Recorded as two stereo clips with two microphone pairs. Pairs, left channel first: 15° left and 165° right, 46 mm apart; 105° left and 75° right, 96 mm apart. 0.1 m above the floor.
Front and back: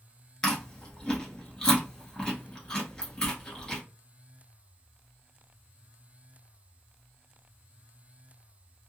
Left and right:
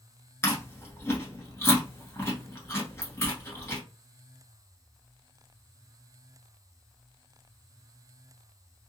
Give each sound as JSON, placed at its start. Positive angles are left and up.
{"t": 0.4, "sound": "chewing", "azimuth_deg": 85, "distance_m": 1.2}